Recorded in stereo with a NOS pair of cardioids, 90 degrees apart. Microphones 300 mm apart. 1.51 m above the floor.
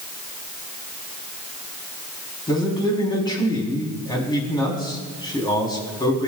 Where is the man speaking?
15° left, 4 m.